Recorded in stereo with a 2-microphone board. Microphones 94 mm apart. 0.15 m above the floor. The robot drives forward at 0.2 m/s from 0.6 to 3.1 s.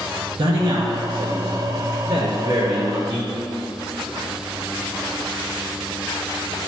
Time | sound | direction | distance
0.4 | a man speaking | 50° right (ahead or behind) | 2 m